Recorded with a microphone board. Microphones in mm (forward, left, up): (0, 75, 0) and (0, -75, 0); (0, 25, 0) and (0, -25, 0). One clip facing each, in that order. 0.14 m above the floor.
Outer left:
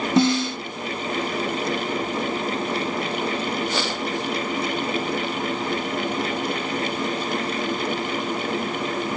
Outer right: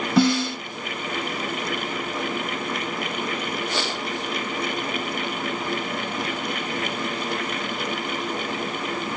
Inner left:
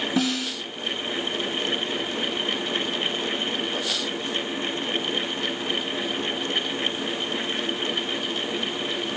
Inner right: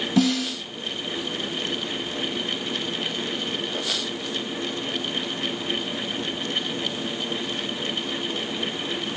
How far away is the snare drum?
About 1.6 m.